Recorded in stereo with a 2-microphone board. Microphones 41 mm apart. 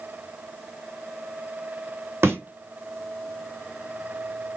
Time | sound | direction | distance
2.2 | a thud | 75° right (ahead or behind) | 2 m